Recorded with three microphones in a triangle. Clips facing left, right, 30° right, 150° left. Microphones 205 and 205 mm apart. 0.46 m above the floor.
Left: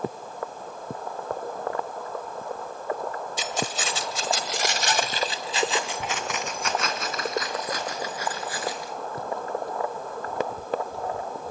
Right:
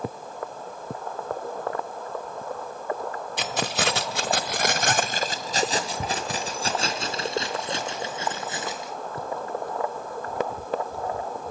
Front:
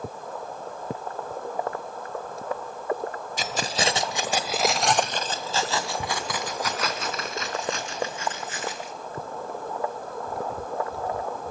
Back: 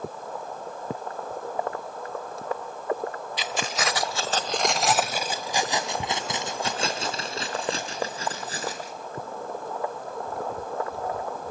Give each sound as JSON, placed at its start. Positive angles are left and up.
{"t": 3.4, "sound": "keys jangling", "azimuth_deg": -75, "distance_m": 1.3}